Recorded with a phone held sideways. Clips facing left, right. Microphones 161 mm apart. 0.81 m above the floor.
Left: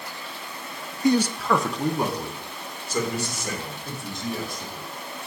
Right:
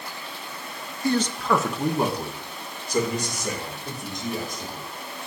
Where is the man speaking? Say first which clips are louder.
Left 2 dB; 20° left (ahead or behind), 0.5 m; by 4.9 s 20° right (ahead or behind), 3.5 m.